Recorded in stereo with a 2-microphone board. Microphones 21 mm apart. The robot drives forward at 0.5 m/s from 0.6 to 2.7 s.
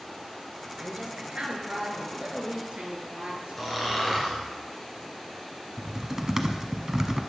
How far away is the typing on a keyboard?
About 1.0 m.